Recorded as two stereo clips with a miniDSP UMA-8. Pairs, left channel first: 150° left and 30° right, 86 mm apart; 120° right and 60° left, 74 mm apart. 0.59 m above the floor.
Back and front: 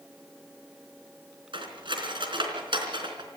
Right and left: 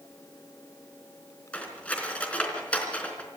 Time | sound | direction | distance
1.5 | cutlery clinking | 50° right | 3.5 m